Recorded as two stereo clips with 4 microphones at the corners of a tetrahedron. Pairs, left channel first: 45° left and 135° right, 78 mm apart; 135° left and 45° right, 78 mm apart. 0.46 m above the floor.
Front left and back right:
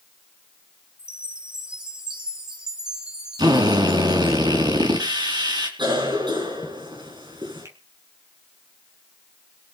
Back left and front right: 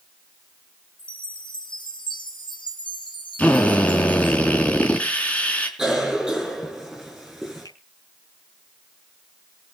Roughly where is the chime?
Behind left.